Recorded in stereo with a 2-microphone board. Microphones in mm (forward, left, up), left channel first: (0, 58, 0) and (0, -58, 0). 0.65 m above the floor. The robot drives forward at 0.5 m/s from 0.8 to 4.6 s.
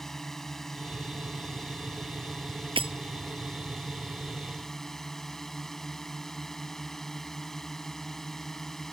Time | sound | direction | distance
0.0 | a drone | 5° left (ahead or behind) | ?
2.8 | breaking glass | 50° right (ahead or behind) | ?